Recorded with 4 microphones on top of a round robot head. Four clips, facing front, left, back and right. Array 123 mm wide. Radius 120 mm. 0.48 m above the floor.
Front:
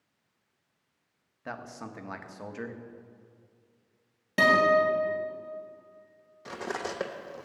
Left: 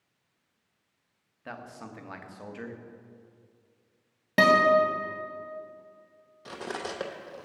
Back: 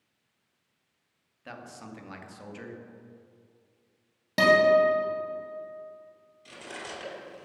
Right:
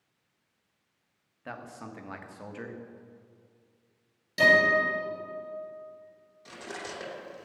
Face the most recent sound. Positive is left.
turn(degrees=35)